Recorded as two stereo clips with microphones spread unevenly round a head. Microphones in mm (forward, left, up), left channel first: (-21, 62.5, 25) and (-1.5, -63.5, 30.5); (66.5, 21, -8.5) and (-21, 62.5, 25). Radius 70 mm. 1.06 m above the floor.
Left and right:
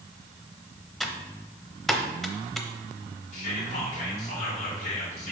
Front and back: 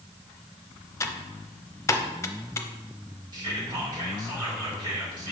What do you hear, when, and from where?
1.0 s typing on a keyboard: 15° left, 0.7 m
3.3 s whispering: 105° left, 1.4 m